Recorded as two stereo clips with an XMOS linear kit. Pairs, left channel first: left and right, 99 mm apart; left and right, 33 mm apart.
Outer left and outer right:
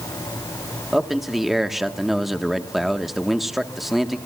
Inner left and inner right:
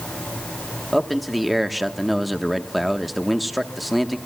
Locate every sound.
0.9 s a man speaking: 5° right (ahead or behind), 1.2 m